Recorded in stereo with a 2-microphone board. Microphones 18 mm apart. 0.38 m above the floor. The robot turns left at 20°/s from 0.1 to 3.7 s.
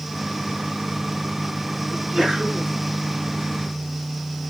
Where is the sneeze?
25° right (ahead or behind), 5.5 m; by 2.7 s 40° right (ahead or behind), 5.5 m.